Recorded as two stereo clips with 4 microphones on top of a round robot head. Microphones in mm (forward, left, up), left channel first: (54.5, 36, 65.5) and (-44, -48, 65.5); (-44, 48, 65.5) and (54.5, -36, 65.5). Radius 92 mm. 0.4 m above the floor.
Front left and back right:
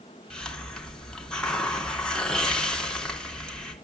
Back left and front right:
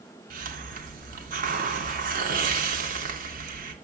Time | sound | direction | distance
0.3 | a hiss | 45° right | 2.5 m